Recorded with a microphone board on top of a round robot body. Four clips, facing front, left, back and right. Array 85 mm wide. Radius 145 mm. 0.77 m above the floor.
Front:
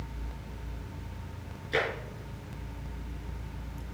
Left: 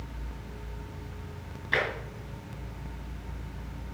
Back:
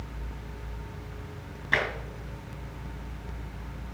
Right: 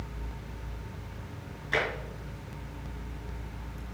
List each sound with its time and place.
1.7 s tapping: 170° left, 5 m